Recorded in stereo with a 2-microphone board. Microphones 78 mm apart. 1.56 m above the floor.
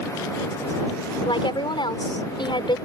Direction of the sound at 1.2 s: 85° left.